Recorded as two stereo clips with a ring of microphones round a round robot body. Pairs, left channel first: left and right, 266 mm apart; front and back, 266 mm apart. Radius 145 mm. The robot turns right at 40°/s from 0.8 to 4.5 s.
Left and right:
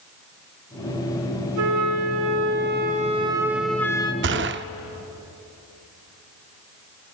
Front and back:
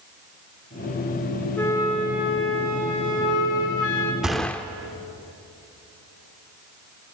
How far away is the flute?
About 2.5 m.